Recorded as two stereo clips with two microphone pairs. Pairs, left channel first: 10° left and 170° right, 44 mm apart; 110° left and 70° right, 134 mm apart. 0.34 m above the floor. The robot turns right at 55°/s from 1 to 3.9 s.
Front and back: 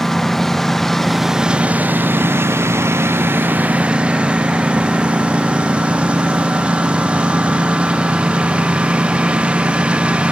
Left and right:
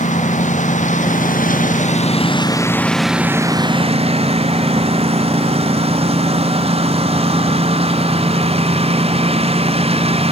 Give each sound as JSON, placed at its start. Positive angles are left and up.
{"t": 0.0, "sound": "a lawn mower", "azimuth_deg": 90}